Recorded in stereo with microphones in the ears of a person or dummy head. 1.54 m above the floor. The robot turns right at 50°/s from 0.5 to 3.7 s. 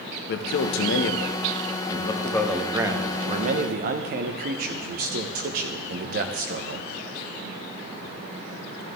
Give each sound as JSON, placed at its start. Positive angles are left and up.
{"t": 0.3, "sound": "a man speaking", "azimuth_deg": 80, "distance_m": 0.9}